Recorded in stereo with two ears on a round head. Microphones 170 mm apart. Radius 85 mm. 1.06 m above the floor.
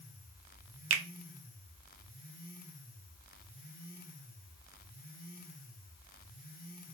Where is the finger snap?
75° right (ahead or behind), 0.6 m.